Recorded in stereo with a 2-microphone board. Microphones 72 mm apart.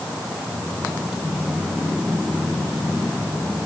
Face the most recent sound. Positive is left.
No sound to turn to.